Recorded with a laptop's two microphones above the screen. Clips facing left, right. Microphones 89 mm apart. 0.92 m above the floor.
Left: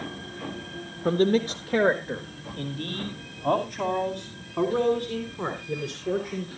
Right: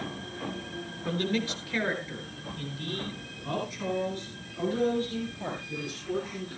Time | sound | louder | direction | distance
1.1 | a man speaking | left 8 dB | 45° left (ahead or behind) | 1.1 m